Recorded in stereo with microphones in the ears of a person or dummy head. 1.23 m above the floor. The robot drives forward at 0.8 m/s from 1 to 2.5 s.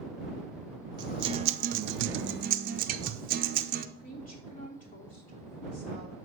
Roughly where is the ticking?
No ticking in this recording.